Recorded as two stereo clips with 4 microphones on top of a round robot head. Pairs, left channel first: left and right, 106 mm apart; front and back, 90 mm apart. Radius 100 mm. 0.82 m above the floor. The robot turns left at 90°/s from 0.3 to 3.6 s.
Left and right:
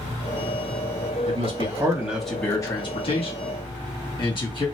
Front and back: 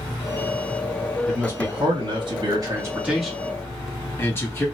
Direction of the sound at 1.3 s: 95° right.